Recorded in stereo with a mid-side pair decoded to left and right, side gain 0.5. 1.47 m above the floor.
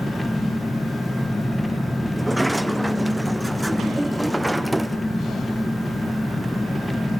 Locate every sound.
0.0 s an engine running: 10° left, 1.2 m
2.2 s a sliding door: 5° right, 0.7 m